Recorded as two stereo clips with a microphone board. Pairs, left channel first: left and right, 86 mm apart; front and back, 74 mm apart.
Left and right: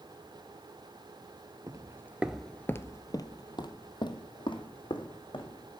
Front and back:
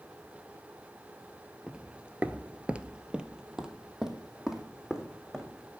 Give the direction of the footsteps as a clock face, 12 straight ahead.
4 o'clock.